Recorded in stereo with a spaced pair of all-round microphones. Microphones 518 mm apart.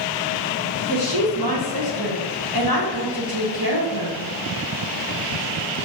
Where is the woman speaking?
45° right (ahead or behind), 1.3 m.